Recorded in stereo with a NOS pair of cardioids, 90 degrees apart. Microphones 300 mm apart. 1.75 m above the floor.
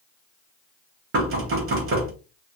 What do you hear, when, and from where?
1.1 s knocking: 45° right, 1.6 m